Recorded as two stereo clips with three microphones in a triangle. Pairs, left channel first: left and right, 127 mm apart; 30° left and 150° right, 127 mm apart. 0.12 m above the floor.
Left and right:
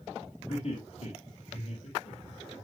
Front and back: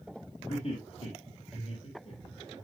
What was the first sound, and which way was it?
Laughter, 55° left.